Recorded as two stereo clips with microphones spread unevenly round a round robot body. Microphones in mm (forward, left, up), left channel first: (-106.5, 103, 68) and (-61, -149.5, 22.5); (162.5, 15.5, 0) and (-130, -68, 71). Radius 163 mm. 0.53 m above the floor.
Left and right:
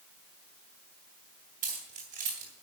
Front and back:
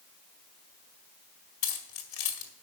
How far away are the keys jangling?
About 1.8 m.